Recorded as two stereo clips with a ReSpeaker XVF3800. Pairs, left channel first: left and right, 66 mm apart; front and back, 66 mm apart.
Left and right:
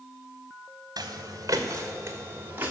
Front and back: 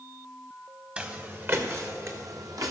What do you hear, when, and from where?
1.0 s footsteps: 110° right, 1.3 m; by 2.7 s 155° right, 2 m